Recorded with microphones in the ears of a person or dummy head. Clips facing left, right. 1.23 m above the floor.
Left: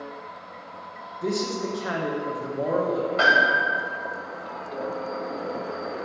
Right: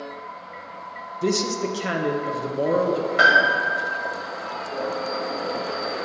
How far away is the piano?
About 1.9 m.